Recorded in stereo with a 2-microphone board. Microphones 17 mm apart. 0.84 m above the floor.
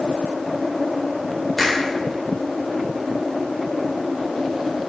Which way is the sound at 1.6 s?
Centre (ahead or behind).